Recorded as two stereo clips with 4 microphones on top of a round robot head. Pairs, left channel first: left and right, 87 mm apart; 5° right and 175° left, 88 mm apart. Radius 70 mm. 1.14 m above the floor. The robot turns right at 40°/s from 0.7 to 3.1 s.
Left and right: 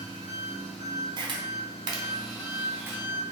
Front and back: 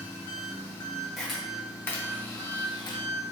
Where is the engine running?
60° left, 0.7 m; by 3.3 s 155° left, 0.7 m.